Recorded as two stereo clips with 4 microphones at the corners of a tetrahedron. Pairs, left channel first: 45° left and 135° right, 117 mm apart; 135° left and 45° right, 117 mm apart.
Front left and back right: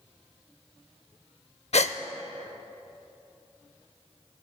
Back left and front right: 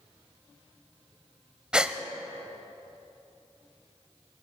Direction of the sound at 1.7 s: 35° left.